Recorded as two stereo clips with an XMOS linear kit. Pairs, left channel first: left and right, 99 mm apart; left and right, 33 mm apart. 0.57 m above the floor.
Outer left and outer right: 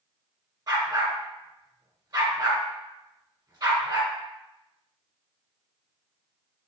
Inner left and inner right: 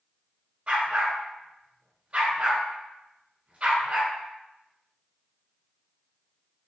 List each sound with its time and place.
0.7 s a dog barking: 40° right (ahead or behind), 1.5 m